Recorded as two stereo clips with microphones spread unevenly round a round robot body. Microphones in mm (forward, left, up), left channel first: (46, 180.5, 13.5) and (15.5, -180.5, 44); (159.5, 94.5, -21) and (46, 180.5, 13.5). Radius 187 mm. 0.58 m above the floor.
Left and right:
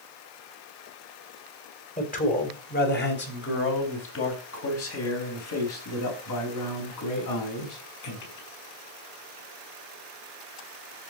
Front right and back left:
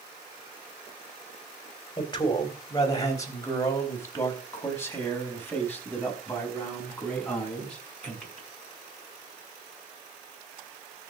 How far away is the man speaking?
About 3.5 m.